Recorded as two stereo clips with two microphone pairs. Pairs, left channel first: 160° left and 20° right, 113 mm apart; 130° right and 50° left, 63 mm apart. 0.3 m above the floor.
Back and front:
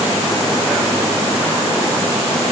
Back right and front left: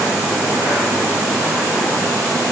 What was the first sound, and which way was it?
Only background noise.